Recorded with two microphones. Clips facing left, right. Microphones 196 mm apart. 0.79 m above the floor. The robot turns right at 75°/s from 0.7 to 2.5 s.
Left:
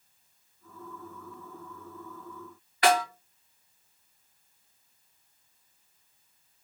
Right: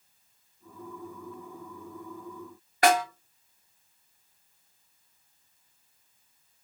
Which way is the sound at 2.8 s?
45° right (ahead or behind).